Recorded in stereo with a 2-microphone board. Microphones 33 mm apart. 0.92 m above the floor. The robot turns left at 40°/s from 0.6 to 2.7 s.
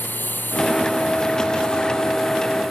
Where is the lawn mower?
75° left (ahead or behind); by 2.7 s 5° right (ahead or behind).